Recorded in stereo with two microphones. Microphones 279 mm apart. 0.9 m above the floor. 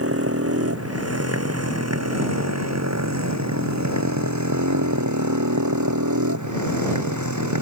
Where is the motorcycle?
55° right (ahead or behind); by 7.6 s 80° right.